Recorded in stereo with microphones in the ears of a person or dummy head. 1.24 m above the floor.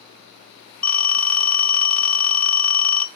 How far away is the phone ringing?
About 0.6 m.